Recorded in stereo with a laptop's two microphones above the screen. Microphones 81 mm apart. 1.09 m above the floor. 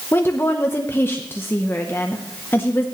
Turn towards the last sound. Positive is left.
turn(degrees=30)  # may be behind; listen again after turning